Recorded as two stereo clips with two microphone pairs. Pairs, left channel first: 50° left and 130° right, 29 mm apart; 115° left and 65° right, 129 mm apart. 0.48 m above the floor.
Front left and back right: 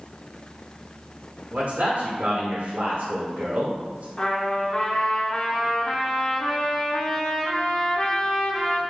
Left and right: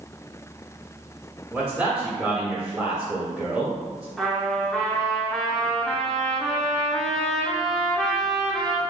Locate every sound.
1.5 s a man speaking: 150° right, 1.1 m
4.2 s a trumpet: 40° left, 0.8 m